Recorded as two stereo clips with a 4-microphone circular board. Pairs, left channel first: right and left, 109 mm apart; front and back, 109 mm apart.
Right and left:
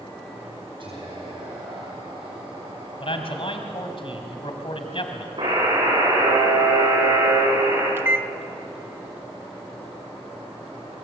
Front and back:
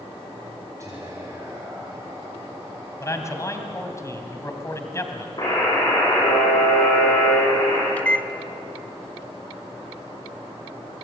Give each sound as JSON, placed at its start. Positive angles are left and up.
{"t": 0.8, "sound": "whispering", "azimuth_deg": 120, "distance_m": 3.0}
{"t": 3.0, "sound": "a man speaking", "azimuth_deg": -60, "distance_m": 2.5}
{"t": 5.4, "sound": "a buzzer", "azimuth_deg": 55, "distance_m": 8.0}
{"t": 8.0, "sound": "a microwave", "azimuth_deg": 55, "distance_m": 0.6}